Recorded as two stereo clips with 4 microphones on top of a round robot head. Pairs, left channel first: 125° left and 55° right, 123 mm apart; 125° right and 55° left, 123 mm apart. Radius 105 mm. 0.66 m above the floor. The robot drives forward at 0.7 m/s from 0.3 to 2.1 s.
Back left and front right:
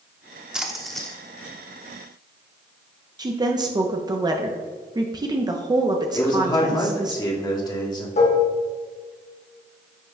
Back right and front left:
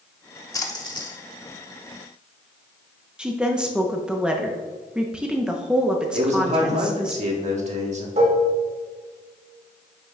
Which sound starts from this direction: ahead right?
A woman speaking, at 3.2 s.